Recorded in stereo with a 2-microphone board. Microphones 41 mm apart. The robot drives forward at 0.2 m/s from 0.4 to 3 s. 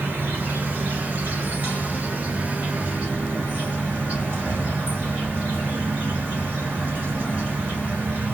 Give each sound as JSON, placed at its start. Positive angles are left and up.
{"t": 0.0, "sound": "an insect", "side_deg": -55, "distance_m": 1.0}